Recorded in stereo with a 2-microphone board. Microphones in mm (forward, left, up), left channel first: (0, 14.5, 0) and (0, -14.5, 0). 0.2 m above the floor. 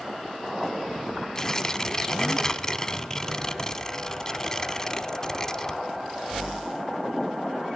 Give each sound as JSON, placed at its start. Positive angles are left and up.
{"t": 1.4, "sound": "tearing paper", "side_deg": 20, "distance_m": 0.6}